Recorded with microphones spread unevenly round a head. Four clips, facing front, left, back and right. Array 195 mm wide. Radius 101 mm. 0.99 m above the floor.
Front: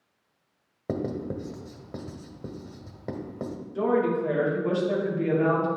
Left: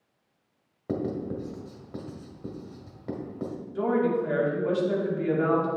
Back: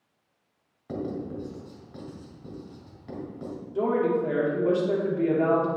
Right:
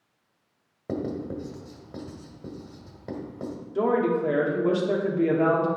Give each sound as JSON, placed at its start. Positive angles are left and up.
{"t": 0.9, "sound": "writing", "azimuth_deg": -10, "distance_m": 1.4}
{"t": 3.8, "sound": "a woman speaking", "azimuth_deg": -110, "distance_m": 2.0}